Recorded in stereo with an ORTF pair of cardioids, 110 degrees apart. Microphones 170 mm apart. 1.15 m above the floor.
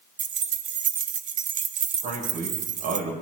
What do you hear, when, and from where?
0.2 s keys jangling: 50° right, 1.1 m
2.0 s a man speaking: 70° right, 8 m